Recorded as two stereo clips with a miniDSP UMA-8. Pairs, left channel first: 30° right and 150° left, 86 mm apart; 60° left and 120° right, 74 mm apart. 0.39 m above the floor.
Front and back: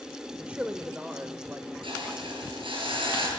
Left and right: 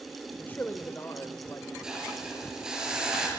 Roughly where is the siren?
I don't hear a siren.